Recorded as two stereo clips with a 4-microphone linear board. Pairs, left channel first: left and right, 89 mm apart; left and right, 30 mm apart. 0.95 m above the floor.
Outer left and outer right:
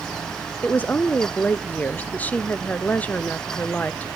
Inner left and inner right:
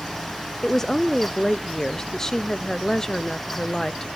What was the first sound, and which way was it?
A woman speaking, 20° left (ahead or behind).